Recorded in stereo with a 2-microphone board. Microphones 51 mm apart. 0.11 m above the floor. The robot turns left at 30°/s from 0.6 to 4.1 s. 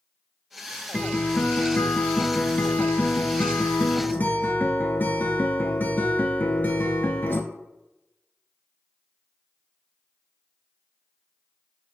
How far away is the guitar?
About 0.6 m.